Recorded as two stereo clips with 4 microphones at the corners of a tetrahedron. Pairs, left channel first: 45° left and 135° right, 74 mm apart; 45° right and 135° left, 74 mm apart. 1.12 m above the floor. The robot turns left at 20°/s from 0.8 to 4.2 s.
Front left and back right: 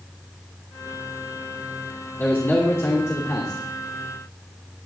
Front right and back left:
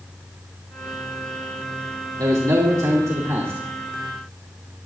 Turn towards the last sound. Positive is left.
turn(degrees=65)